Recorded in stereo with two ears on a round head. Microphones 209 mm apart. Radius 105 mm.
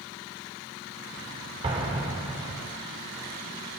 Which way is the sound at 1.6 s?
25° right (ahead or behind).